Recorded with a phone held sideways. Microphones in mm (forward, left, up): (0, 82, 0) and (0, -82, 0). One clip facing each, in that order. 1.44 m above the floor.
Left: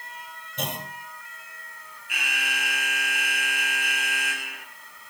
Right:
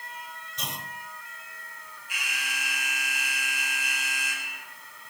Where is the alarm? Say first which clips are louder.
Left 5 dB; 70° left (ahead or behind), 2.5 m.